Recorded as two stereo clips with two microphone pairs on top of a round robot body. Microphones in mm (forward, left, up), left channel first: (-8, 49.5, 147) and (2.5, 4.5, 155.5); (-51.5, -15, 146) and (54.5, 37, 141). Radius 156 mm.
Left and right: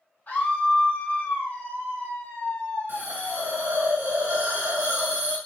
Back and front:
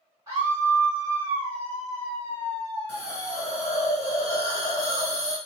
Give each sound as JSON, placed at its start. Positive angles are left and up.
{"t": 0.3, "sound": "a scream", "azimuth_deg": 85, "distance_m": 2.5}
{"t": 2.9, "sound": "a hiss", "azimuth_deg": -90, "distance_m": 2.0}